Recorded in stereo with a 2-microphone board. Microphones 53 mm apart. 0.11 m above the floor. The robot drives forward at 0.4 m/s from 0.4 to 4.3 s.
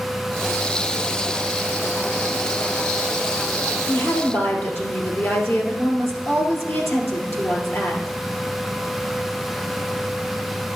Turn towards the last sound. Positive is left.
turn(degrees=50)  # may be behind; listen again after turning